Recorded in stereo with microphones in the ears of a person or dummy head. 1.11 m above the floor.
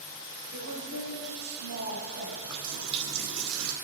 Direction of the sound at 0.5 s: 80° right.